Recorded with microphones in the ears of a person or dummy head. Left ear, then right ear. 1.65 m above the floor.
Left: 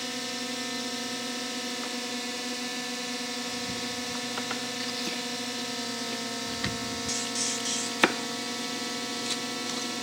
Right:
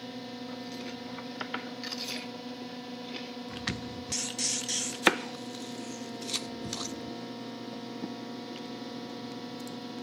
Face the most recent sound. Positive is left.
turn(degrees=60)  # may be behind; listen again after turning